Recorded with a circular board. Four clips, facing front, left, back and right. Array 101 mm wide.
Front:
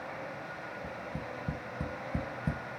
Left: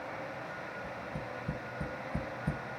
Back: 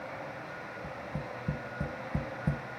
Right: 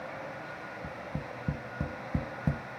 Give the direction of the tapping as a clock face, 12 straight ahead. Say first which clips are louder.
Right 1 dB, back 2 dB; 3 o'clock.